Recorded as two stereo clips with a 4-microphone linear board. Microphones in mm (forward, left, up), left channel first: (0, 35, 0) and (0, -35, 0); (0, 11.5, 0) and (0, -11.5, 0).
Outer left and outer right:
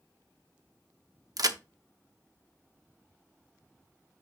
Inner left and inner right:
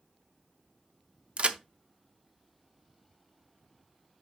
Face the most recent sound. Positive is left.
turn(degrees=-60)  # may be behind; listen again after turning